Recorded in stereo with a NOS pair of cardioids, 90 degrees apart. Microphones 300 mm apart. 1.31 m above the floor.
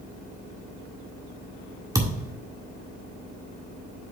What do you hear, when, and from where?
1.9 s a thud: 10° right, 1.8 m